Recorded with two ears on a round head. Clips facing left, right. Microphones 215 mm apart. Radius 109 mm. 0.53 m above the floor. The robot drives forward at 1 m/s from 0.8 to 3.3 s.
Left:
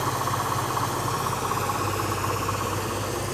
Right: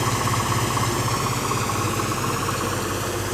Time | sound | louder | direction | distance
0.0 | an engine running | right 4 dB | 40° right (ahead or behind) | 3.5 m